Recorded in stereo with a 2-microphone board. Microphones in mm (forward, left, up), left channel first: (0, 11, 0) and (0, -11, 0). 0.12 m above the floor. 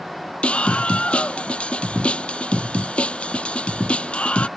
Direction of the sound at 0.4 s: 65° left (ahead or behind).